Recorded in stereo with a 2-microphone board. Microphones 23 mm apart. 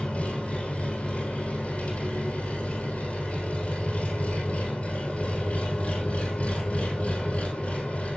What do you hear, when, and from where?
0.0 s an engine running: 65° left (ahead or behind), 4.5 m